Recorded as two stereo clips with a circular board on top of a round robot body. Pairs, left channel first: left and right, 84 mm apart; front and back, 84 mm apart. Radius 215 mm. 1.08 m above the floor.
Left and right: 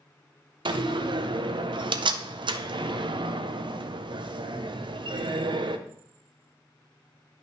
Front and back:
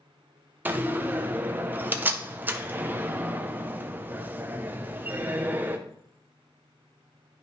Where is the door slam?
110° right, 0.6 m.